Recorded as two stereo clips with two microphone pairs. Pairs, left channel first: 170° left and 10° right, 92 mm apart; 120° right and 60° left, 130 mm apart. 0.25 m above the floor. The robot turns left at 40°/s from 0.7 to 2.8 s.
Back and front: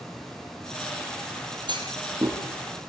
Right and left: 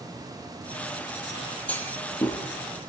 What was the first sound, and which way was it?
A clunk, 45° right.